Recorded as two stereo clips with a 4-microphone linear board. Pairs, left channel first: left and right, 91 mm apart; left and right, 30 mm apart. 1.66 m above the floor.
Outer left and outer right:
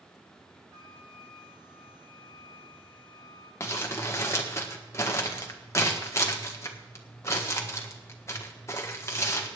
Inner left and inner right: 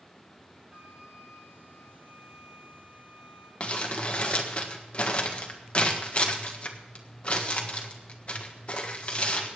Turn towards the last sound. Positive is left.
turn(degrees=30)  # may be behind; listen again after turning